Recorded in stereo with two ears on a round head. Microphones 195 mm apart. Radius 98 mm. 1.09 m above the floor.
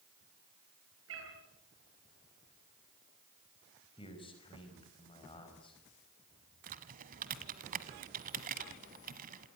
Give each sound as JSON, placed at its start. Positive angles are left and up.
{"t": 1.1, "sound": "a cat meowing", "side_deg": -60, "distance_m": 7.5}
{"t": 4.0, "sound": "a man speaking", "side_deg": 25, "distance_m": 5.0}
{"t": 6.7, "sound": "typing on a keyboard", "side_deg": -40, "distance_m": 1.3}